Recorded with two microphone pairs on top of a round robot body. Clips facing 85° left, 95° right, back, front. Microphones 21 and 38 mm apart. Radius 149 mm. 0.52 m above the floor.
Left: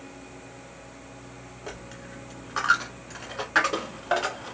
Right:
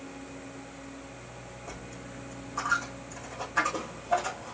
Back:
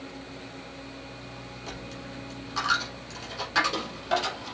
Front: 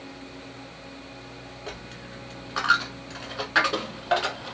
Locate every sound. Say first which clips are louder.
1.7 s a dropped coin: left 4 dB, even; 65° left, 1.0 m